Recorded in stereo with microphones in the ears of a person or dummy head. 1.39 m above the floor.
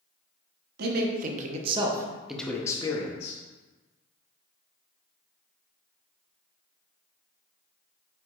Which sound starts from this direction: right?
A man speaking, at 0.8 s.